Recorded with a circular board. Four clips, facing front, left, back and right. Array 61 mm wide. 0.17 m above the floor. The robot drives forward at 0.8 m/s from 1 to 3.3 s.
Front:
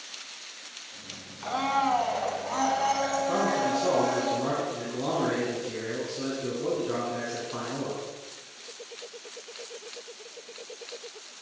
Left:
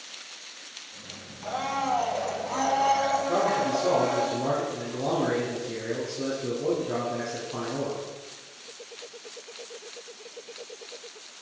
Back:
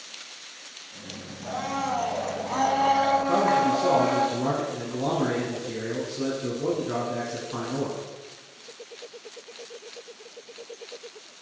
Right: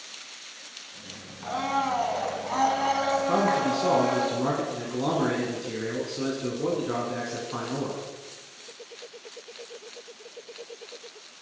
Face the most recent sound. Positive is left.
turn(degrees=-90)